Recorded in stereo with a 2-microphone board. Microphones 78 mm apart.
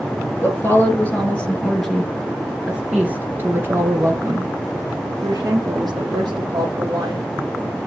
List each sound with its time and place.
0.4 s a woman speaking: 30° left (ahead or behind), 2 m; by 7.3 s 65° right (ahead or behind), 3.5 m